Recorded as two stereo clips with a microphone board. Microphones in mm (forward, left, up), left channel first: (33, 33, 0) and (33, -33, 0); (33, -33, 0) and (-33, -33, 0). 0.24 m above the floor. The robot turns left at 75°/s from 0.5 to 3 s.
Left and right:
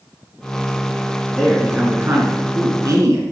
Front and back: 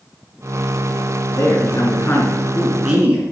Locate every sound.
1.3 s a man speaking: 10° left, 3.5 m; by 3.2 s 115° right, 3.5 m